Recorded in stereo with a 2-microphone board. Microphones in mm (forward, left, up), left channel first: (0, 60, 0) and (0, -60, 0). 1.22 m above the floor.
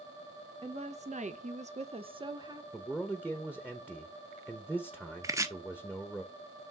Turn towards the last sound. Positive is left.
turn(degrees=-25)  # may be behind; listen again after turning